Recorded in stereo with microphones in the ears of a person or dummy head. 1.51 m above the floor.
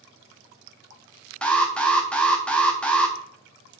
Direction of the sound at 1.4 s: 10° left (ahead or behind).